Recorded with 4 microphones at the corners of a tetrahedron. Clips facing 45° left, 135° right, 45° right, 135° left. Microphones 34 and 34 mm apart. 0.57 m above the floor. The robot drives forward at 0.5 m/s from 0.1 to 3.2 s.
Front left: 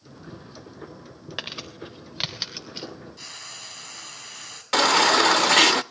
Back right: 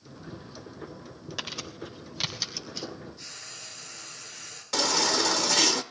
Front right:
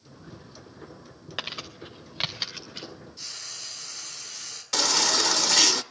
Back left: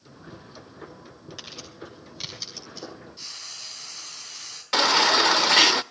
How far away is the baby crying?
About 0.5 m.